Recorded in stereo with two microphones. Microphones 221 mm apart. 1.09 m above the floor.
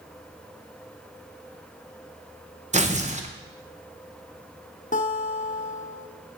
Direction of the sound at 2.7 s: 35° right (ahead or behind).